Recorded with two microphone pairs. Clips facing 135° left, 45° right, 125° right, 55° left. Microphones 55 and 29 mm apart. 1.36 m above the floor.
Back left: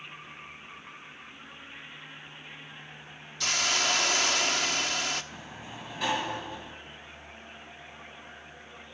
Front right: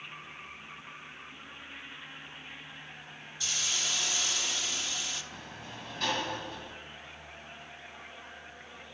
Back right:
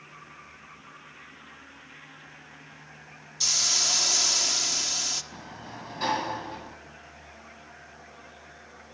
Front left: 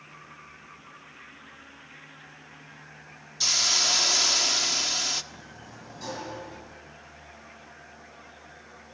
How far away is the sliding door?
About 2.0 m.